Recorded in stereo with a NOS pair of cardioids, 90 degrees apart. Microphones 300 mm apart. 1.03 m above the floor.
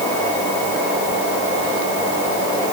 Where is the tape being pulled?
No tape being pulled in this recording.